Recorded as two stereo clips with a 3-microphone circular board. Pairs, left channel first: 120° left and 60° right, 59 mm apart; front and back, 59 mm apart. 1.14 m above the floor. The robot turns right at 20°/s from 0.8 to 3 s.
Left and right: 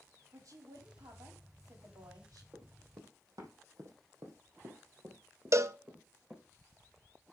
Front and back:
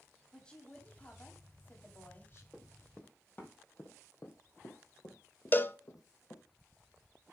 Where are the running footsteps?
85° right, 3 m; by 6.4 s 10° left, 3.5 m.